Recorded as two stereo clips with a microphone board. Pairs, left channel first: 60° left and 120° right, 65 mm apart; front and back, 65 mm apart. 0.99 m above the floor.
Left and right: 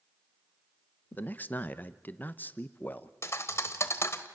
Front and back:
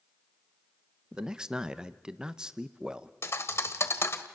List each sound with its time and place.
1.1 s a man speaking: 110° left, 0.8 m
3.2 s a thud: 35° left, 1.1 m